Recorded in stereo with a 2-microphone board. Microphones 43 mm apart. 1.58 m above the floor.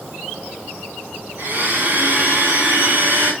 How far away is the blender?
About 5 m.